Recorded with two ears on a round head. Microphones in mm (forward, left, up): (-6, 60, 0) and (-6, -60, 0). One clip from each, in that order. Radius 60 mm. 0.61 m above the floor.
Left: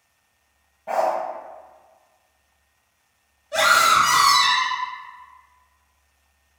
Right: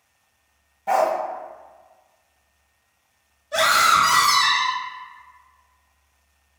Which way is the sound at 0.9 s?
80° right.